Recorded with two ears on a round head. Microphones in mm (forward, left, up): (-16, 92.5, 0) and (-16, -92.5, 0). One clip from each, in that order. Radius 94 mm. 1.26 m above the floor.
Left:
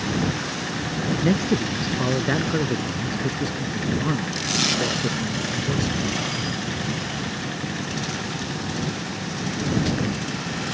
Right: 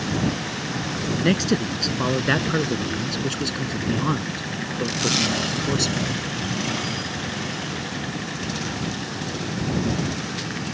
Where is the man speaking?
60° right (ahead or behind); by 6.0 s 90° right.